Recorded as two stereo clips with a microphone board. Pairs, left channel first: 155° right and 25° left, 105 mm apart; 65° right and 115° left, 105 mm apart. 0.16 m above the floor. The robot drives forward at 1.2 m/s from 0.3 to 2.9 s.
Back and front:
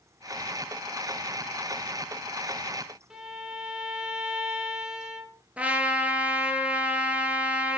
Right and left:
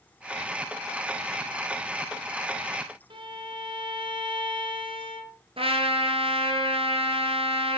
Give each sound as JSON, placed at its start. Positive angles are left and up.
{"t": 3.1, "sound": "a violin", "azimuth_deg": 105, "distance_m": 2.0}
{"t": 5.6, "sound": "a trumpet", "azimuth_deg": 100, "distance_m": 2.5}